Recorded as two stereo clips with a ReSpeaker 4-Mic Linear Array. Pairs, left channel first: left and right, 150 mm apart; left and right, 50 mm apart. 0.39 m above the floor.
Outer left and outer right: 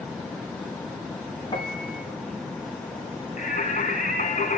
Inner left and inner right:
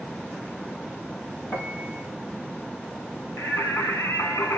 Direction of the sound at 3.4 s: 60° left (ahead or behind).